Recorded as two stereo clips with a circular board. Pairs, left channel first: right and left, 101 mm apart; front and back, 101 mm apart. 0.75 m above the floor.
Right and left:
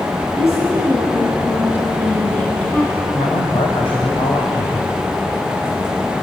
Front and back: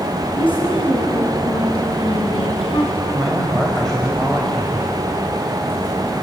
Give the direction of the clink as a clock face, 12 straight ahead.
I don't hear a clink.